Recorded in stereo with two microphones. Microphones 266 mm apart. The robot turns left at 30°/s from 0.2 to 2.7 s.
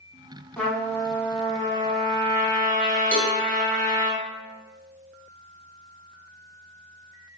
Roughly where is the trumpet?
Behind.